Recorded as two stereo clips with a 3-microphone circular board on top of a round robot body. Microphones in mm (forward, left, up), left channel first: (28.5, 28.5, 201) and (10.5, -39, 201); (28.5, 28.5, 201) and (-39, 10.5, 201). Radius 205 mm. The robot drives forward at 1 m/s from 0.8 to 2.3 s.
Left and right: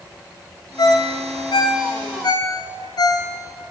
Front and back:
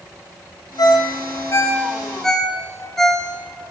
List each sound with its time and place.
0.8 s a ringtone: 45° left, 1.7 m; by 3.7 s 100° left, 1.2 m